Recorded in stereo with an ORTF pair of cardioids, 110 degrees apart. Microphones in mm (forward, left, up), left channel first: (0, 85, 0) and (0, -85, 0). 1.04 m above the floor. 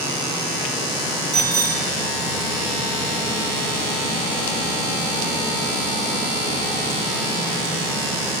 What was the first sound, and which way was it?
A bicycle bell, 35° right.